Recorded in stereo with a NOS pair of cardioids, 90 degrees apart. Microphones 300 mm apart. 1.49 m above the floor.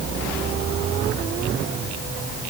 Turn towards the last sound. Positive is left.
No sound to turn to.